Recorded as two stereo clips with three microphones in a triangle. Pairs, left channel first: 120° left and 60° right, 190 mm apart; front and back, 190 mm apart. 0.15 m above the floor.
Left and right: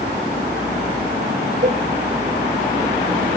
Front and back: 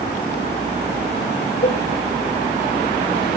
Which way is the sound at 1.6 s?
25° right.